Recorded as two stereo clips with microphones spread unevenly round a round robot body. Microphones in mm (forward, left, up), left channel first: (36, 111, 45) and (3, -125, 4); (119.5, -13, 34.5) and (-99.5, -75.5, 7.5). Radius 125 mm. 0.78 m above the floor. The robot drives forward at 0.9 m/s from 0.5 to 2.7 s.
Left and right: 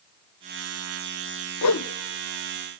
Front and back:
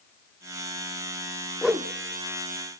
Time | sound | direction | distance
1.6 | a whoosh | 100° left | 0.5 m